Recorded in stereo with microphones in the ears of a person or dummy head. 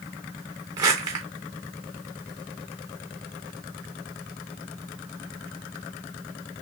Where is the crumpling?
25° right (ahead or behind), 1.0 m.